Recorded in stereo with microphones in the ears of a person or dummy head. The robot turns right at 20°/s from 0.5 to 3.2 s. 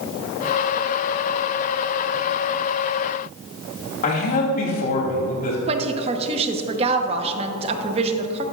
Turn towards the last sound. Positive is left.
turn(degrees=-25)  # may be behind; listen again after turning